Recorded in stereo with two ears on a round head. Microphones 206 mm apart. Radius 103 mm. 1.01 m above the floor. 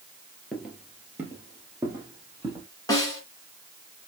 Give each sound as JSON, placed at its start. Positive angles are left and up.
{"t": 0.5, "sound": "footsteps", "side_deg": 0, "distance_m": 1.2}
{"t": 2.9, "sound": "a snare drum", "side_deg": 15, "distance_m": 1.8}